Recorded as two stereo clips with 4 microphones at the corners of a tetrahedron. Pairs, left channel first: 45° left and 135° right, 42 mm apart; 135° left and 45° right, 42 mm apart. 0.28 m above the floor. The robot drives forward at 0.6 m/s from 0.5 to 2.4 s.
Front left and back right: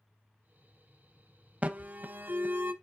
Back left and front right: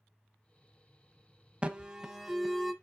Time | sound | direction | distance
1.6 | an alarm | 95° right | 0.8 m